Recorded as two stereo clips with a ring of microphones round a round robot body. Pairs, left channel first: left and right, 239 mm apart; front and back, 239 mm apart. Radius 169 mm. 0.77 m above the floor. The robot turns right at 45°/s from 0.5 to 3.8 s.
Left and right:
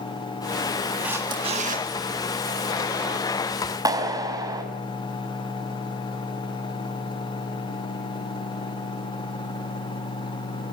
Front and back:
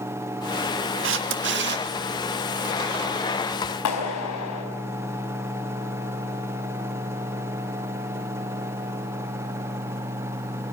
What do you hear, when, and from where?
1.0 s a camera shutter: 175° right, 1.6 m; by 1.9 s 135° right, 1.6 m
3.9 s a clap: 15° right, 4.5 m